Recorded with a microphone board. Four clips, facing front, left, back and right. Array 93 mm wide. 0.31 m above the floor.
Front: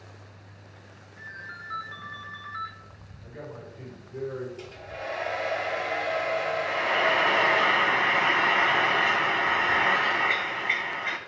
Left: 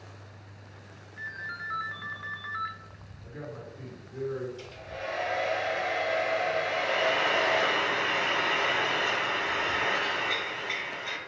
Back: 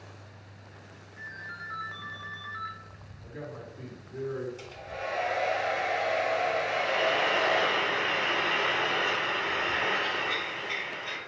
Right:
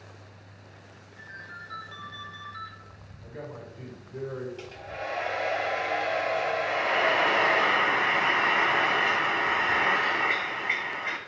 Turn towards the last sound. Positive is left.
turn(degrees=-35)